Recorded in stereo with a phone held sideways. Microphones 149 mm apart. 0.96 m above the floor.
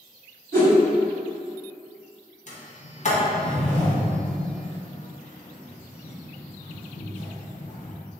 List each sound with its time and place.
0.5 s a whoosh: 20° left (ahead or behind), 1.5 m
2.5 s a sliding door: 50° left (ahead or behind), 0.7 m